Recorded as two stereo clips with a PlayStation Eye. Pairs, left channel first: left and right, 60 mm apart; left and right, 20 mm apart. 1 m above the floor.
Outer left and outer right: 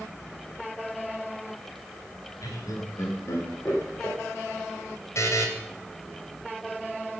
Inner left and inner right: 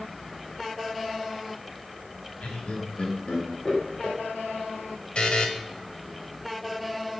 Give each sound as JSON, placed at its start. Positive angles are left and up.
{"t": 2.4, "sound": "laughter", "side_deg": 75, "distance_m": 3.0}
{"t": 5.2, "sound": "a buzzer", "side_deg": 55, "distance_m": 2.5}